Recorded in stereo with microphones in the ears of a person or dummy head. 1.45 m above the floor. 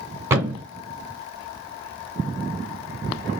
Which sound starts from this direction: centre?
A thud, at 0.3 s.